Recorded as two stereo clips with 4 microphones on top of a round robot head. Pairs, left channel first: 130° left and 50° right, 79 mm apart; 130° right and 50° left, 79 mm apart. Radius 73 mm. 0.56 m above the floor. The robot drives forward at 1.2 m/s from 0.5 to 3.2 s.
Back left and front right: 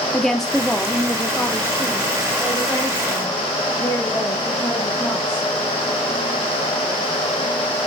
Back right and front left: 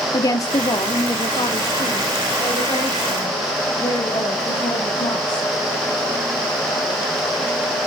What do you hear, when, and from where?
0.1 s a woman speaking: 145° right, 1.4 m; by 5.5 s 170° right, 4 m